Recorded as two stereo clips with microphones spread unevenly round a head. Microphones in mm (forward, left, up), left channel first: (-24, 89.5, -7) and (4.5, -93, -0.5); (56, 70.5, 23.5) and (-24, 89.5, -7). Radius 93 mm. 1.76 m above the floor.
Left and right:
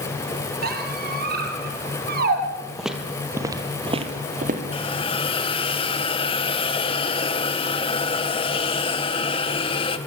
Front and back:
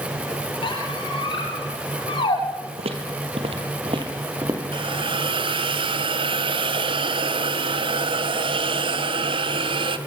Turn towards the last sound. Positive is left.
turn(degrees=160)